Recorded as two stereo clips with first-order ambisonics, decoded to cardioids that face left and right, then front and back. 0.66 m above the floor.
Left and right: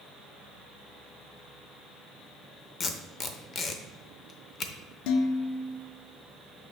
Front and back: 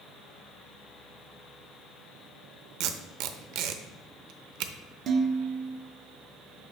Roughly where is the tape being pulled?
Behind left.